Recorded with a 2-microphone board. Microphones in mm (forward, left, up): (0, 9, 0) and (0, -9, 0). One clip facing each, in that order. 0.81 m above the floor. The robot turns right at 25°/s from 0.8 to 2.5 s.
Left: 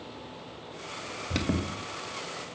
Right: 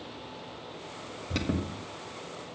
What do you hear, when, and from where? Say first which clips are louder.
1.3 s an alarm: left 1 dB; 20° left (ahead or behind), 1.4 m